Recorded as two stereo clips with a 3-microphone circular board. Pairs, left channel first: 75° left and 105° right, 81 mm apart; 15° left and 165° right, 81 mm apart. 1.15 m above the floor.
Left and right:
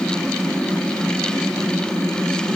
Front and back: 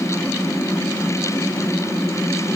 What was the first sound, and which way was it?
Only background noise.